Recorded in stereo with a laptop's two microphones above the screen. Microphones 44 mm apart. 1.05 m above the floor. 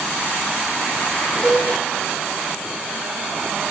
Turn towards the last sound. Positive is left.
turn(degrees=-10)  # may be behind; listen again after turning